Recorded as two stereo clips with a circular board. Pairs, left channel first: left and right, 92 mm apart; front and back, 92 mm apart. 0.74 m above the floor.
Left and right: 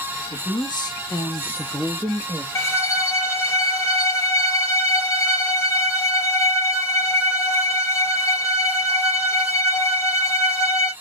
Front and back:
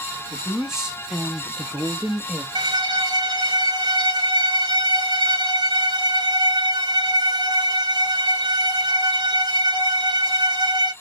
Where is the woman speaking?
95° left, 1.4 m; by 2.5 s 95° right, 0.9 m.